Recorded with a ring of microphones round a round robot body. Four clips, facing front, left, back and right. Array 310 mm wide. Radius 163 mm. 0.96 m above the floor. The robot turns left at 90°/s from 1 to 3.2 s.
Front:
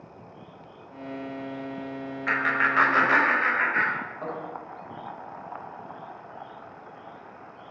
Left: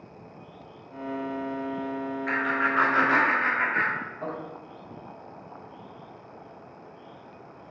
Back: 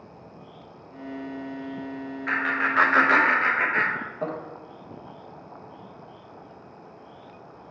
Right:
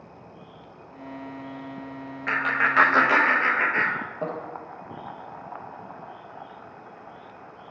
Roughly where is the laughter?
Ahead right.